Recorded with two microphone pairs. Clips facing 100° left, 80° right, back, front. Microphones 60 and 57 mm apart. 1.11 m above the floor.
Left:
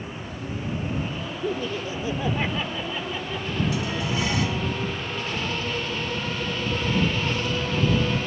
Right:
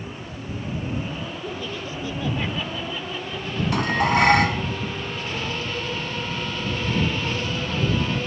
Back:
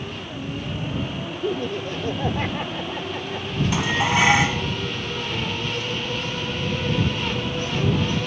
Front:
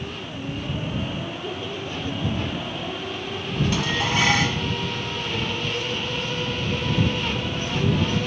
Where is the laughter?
160° left; by 3.6 s straight behind.